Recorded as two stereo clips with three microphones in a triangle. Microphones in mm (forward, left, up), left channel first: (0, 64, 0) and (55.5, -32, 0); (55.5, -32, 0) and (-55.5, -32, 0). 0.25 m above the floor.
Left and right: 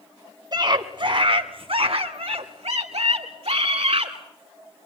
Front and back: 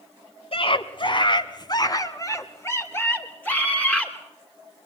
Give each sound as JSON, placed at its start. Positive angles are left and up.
{"t": 0.5, "sound": "a scream", "azimuth_deg": -15, "distance_m": 2.5}